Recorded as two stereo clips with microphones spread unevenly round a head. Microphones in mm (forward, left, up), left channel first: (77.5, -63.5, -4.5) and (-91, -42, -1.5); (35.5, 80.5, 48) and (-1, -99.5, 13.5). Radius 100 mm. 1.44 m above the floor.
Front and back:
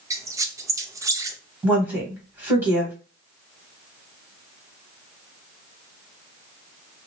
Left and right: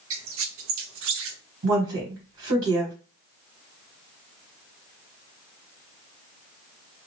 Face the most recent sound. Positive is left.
turn(degrees=-110)